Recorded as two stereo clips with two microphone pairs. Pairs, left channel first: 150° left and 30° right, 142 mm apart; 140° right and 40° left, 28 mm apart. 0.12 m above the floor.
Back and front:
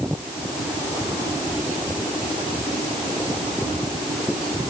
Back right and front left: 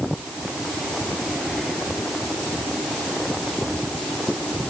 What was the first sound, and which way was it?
Only background noise.